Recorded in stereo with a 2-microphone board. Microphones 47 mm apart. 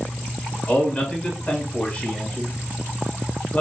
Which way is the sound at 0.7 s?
25° left (ahead or behind).